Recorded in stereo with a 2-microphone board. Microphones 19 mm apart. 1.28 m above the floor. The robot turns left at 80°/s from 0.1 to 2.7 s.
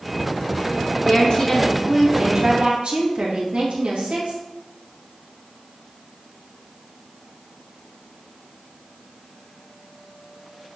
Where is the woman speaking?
55° left, 1.9 m; by 4.4 s 75° right, 1.9 m.